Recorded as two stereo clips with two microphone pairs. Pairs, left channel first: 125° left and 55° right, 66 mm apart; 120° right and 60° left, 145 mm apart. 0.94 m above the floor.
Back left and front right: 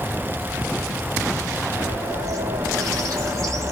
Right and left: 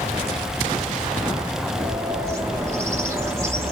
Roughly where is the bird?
Ahead.